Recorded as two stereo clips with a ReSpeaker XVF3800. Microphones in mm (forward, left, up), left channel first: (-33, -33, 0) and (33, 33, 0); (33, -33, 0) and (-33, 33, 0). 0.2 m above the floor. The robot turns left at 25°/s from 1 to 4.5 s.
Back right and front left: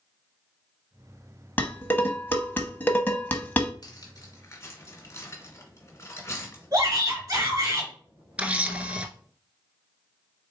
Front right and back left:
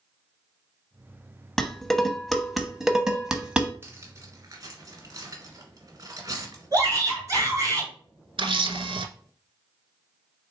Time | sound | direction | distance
1.6 | dishes clattering | 115° right | 0.8 m
3.8 | cutlery clinking | 165° right | 1.4 m
6.7 | a shout | 90° left | 3 m
8.4 | a camera shutter | 120° left | 0.7 m